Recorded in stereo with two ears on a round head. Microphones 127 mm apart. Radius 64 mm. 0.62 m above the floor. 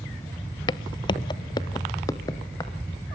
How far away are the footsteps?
About 0.6 m.